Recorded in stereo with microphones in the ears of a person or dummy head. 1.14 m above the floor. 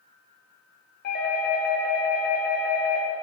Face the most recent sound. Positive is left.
turn(degrees=45)  # may be behind; listen again after turning